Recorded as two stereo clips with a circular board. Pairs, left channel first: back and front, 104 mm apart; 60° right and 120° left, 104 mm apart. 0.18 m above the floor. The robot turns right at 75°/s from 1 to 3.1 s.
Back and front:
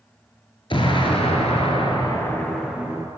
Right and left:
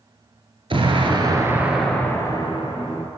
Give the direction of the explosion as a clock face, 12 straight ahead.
7 o'clock.